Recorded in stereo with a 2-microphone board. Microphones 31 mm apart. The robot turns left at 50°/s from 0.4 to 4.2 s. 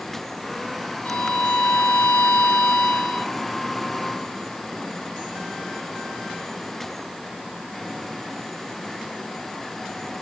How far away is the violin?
About 1.3 m.